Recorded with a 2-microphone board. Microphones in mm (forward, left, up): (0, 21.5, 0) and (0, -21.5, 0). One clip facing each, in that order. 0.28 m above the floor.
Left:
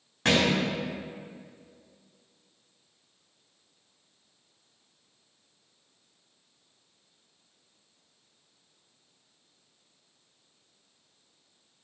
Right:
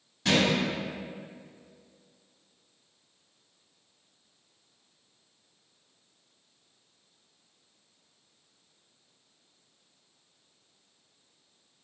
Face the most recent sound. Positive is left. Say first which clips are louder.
# left 1 dB
turn(degrees=50)  # may be behind; listen again after turning